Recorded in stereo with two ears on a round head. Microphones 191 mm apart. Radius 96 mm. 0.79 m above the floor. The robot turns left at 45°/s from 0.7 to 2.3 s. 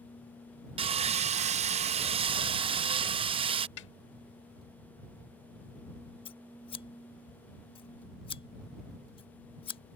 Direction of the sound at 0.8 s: 55° right.